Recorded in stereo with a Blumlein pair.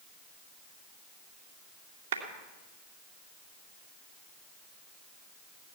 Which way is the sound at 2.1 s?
65° right.